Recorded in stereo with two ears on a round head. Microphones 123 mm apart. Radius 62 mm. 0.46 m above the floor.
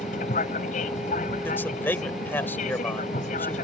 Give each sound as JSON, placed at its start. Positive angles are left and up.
{"t": 0.0, "sound": "an aircraft", "side_deg": 55}
{"t": 1.4, "sound": "a man speaking", "side_deg": 15}